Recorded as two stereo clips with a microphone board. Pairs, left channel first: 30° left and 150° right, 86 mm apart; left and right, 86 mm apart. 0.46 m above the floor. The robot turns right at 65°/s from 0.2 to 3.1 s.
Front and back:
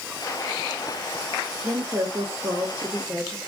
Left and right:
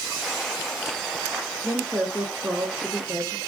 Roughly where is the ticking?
No ticking in this recording.